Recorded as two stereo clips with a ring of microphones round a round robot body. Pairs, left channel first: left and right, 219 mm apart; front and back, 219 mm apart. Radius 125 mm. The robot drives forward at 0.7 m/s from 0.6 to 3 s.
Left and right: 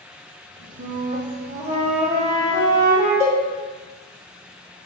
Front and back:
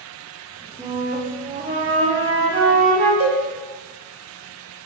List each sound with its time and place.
0.8 s a flute: 105° right, 0.7 m; by 3.1 s 165° right, 1.8 m
3.2 s a cowbell: 155° left, 1.2 m